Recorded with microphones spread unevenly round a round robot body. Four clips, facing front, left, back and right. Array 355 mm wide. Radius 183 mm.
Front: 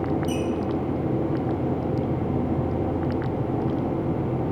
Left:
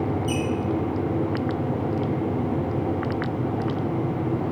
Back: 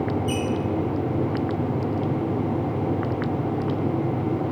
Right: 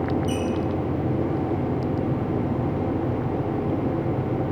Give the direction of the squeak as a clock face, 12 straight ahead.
11 o'clock.